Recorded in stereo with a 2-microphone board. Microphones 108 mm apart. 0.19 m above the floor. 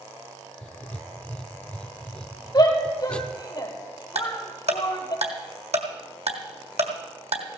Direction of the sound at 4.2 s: 80° right.